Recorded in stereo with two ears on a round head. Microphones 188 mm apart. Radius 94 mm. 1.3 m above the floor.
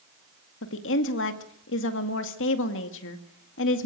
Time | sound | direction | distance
0.6 | a woman speaking | 65° left (ahead or behind) | 2 m